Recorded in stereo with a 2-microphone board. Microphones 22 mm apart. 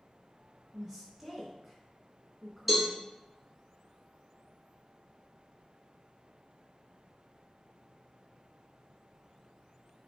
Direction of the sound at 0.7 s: 20° right (ahead or behind).